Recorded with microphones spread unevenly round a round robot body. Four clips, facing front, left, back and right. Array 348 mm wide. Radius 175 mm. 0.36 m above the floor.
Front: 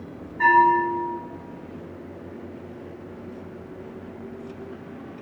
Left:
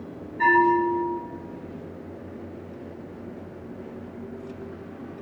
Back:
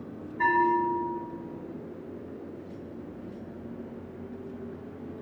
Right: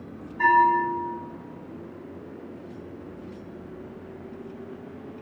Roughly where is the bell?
Behind.